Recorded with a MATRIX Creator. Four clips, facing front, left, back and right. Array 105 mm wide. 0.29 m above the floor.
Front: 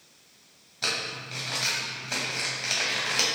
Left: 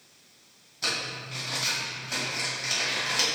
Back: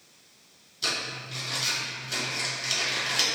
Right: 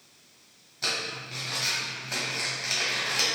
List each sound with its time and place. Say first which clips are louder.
0.8 s crumpling: even, front 1 dB; 5° right, 1.3 m